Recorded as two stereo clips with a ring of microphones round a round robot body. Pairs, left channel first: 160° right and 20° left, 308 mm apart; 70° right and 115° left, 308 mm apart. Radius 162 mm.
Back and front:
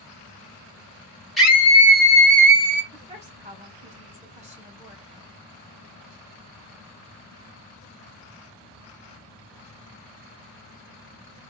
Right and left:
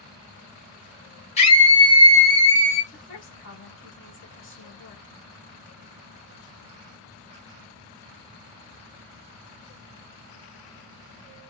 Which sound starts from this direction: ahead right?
A woman speaking, at 2.9 s.